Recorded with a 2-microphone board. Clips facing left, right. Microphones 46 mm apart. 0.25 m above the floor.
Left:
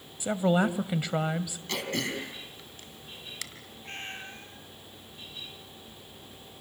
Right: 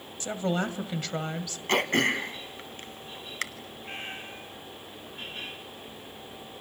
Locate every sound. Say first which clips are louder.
0.2 s a woman speaking: left 4 dB; 15° left (ahead or behind), 1.4 m
1.7 s throat clearing: right 9 dB; 45° right (ahead or behind), 2 m
3.8 s a cat meowing: right 1 dB; 10° right (ahead or behind), 3.5 m